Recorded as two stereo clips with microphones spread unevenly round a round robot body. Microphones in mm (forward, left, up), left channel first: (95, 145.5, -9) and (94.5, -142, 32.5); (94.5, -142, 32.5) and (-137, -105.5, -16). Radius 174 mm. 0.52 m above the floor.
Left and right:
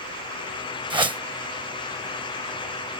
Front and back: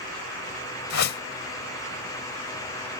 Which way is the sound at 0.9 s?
15° right.